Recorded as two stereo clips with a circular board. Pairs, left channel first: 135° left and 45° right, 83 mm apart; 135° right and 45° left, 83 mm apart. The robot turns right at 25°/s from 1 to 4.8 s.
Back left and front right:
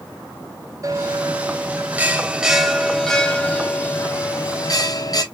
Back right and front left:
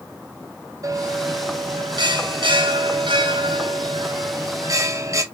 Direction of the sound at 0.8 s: Straight ahead.